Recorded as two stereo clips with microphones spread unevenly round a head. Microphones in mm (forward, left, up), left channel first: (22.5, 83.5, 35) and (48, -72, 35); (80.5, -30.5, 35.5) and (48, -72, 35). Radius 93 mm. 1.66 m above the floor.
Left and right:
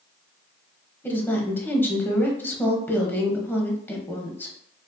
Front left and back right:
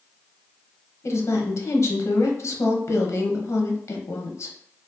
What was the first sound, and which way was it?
A woman speaking, 20° left.